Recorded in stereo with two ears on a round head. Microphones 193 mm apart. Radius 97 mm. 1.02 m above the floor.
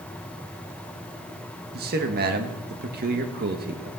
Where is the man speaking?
45° right (ahead or behind), 1.6 m.